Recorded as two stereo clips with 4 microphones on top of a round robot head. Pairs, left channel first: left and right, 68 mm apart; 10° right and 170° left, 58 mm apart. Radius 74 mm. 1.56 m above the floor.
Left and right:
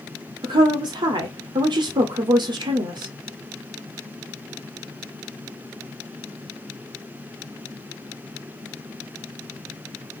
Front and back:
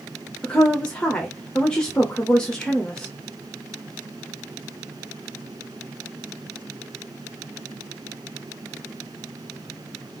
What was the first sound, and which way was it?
A woman speaking, 85° right.